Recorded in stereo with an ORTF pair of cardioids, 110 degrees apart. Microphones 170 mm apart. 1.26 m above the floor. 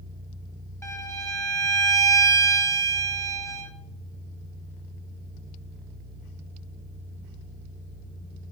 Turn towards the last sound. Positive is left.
turn(degrees=15)